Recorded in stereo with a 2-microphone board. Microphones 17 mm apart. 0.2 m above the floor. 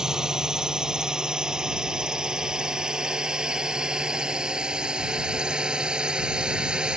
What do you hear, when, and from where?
0.0 s a drone: 40° right (ahead or behind); by 7.0 s 70° right (ahead or behind)